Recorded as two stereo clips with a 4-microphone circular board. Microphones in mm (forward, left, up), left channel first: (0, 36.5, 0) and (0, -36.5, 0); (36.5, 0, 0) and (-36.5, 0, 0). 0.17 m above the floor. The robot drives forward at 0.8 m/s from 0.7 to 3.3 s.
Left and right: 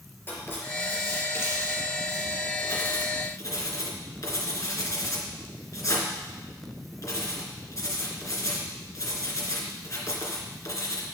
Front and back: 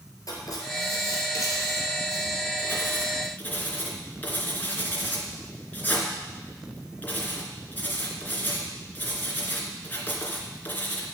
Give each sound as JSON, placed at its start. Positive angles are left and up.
{"t": 0.3, "sound": "writing", "azimuth_deg": 30, "distance_m": 4.0}